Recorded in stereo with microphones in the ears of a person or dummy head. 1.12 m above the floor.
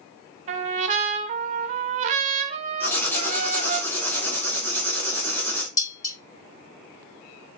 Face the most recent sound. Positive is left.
turn(degrees=20)  # may be behind; listen again after turning